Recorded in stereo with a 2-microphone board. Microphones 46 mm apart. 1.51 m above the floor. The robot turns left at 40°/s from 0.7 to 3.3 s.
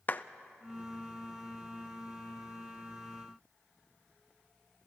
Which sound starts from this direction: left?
A clap, at 0.1 s.